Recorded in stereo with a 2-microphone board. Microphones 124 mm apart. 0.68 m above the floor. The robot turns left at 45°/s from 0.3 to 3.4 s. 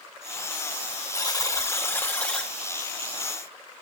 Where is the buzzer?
70° left, 1.3 m; by 2.5 s 5° left, 1.3 m.